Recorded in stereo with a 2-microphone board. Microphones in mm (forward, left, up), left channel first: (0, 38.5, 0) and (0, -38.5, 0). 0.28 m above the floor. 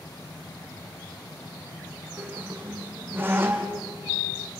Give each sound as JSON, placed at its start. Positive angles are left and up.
{"t": 2.2, "sound": "a squeak", "side_deg": -25, "distance_m": 2.5}